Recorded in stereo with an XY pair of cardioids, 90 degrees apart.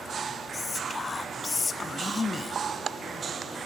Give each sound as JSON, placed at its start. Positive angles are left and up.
{"t": 0.5, "sound": "whispering", "azimuth_deg": 35, "distance_m": 0.6}